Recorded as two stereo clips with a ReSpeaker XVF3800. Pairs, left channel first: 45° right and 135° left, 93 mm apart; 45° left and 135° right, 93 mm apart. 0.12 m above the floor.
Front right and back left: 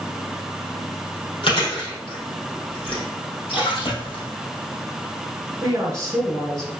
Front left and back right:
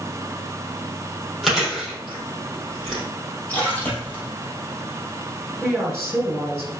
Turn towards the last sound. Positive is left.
turn(degrees=170)